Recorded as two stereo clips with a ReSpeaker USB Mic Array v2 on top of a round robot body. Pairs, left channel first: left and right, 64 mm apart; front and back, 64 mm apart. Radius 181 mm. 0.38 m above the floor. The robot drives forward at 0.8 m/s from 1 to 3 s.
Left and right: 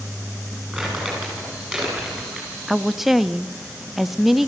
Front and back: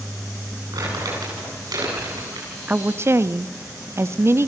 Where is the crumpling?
165° right, 9 m.